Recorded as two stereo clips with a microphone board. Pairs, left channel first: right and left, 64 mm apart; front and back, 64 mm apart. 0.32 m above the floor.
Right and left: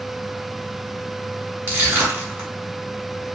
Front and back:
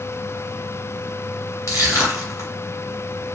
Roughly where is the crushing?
Ahead left.